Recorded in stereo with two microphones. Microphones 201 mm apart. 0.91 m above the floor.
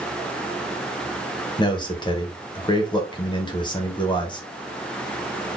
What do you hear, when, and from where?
1.6 s a man speaking: 20° left (ahead or behind), 0.9 m